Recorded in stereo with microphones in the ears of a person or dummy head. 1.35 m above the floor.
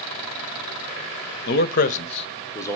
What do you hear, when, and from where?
1.5 s a man speaking: 50° left (ahead or behind), 0.8 m; by 2.8 s 5° left (ahead or behind), 1.0 m